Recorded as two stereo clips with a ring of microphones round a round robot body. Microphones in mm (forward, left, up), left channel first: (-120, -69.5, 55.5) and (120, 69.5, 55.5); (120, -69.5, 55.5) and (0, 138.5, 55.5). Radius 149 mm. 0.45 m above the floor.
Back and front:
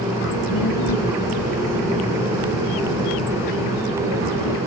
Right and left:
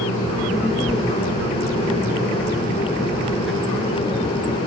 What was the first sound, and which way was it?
A child speaking, 150° right.